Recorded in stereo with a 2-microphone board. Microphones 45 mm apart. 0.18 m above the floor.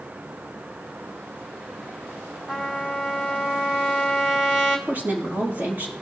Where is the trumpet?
15° right (ahead or behind), 2.0 m.